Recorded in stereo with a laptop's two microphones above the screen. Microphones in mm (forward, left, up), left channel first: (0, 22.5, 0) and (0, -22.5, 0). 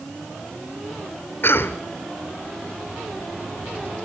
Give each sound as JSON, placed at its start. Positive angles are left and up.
{"t": 1.4, "sound": "a cough", "side_deg": 55, "distance_m": 3.0}